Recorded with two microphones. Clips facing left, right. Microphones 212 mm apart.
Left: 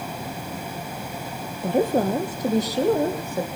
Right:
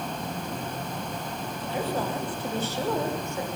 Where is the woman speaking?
50° left (ahead or behind), 2.5 m; by 3.5 s 30° left (ahead or behind), 4.5 m.